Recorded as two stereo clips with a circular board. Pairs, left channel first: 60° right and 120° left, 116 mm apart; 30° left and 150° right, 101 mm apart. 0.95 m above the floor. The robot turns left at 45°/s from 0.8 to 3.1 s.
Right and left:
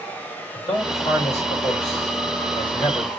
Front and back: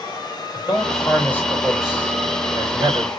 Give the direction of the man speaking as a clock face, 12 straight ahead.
1 o'clock.